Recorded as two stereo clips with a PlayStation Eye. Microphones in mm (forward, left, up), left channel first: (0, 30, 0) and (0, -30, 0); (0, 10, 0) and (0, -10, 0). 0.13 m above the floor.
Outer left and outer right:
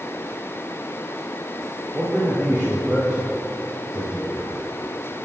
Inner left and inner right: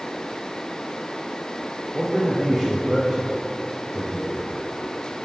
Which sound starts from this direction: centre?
A man speaking, at 1.9 s.